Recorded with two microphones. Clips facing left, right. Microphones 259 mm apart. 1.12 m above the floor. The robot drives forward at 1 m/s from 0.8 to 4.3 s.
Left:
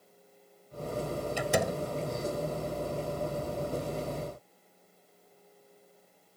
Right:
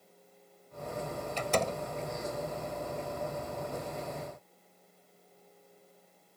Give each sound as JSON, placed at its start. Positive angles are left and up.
{"t": 1.4, "sound": "a door slam", "side_deg": 10}